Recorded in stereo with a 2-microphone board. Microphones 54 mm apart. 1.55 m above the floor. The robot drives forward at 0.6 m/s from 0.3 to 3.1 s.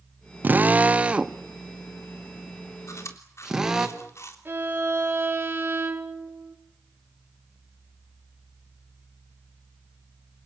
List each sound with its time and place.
0.4 s a drill: 35° right (ahead or behind), 0.7 m; by 3.9 s 10° right (ahead or behind), 2 m
2.9 s chewing: 65° left (ahead or behind), 3 m; by 4.3 s 60° left (ahead or behind), 3 m
4.5 s a violin: 40° right (ahead or behind), 4 m